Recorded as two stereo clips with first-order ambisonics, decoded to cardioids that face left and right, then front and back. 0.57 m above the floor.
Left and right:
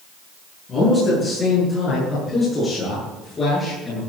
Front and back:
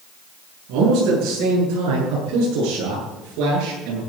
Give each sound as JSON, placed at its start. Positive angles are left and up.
{"t": 0.7, "sound": "a man speaking", "azimuth_deg": 155, "distance_m": 8.0}